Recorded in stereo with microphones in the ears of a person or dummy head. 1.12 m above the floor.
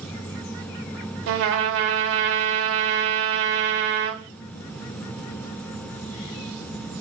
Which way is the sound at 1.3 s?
55° right (ahead or behind).